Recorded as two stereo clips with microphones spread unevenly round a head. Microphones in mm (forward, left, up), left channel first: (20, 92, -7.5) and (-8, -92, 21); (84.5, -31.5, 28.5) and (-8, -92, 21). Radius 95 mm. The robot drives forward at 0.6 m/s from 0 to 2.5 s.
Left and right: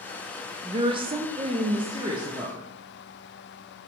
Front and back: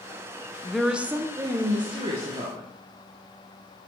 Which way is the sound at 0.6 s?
45° right.